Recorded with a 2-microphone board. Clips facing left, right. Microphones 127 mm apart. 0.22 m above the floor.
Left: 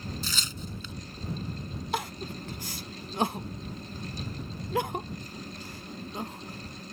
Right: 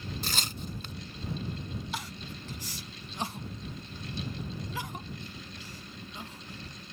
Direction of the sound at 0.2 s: 55° right (ahead or behind).